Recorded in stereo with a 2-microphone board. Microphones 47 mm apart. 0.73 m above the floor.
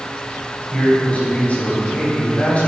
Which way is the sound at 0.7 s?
30° left (ahead or behind).